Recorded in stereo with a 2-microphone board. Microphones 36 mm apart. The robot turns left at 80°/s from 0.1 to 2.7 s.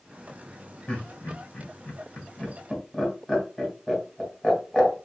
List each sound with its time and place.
0.9 s laughter: 25° left (ahead or behind), 2.0 m; by 5.0 s 5° left (ahead or behind), 2.0 m